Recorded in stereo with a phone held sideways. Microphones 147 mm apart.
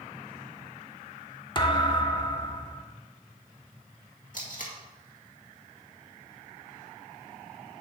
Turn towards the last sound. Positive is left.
turn(degrees=60)  # may be behind; listen again after turning